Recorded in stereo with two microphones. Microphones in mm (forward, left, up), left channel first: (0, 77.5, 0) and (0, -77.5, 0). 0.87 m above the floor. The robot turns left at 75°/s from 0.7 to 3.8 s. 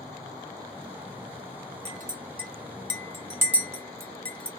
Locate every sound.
1.9 s a clink: 45° right (ahead or behind), 1.1 m; by 4.5 s 10° left (ahead or behind), 1.1 m